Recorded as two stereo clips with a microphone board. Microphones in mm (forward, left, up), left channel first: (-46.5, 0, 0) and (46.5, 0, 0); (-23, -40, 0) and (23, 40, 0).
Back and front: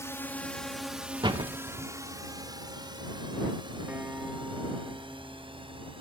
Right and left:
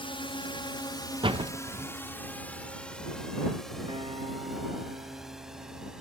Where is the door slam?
35° left.